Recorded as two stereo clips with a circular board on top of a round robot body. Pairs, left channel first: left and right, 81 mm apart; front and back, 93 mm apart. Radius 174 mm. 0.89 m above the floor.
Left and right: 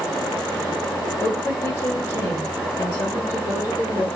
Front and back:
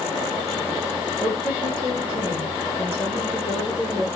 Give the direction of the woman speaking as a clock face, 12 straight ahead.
8 o'clock.